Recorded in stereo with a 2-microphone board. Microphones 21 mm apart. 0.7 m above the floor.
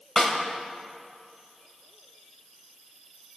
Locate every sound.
0.2 s a snare drum: 30° left (ahead or behind), 1.9 m